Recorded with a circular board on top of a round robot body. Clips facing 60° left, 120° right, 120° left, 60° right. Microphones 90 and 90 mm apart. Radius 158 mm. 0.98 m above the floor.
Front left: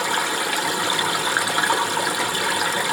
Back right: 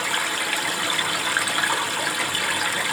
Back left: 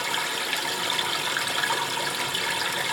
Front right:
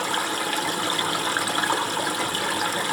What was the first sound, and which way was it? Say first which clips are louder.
Running water: front left 3 dB, front right 4 dB; 10° right.